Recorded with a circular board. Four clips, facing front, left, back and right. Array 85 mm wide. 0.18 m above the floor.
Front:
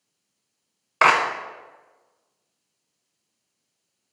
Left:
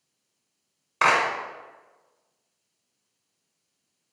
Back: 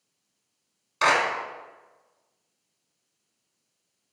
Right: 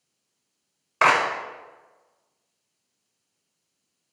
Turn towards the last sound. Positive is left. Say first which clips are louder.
# right 2 dB, front 4 dB
turn(degrees=-15)